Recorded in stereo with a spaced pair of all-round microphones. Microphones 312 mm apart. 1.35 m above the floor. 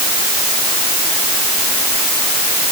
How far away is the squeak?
I don't hear a squeak.